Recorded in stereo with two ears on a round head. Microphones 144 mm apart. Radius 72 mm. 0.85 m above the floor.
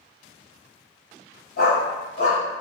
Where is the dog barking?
65° left (ahead or behind), 1.3 m; by 2.6 s 25° left (ahead or behind), 0.7 m.